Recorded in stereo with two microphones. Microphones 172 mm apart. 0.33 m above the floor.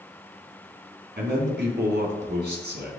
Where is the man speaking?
70° right (ahead or behind), 3 m.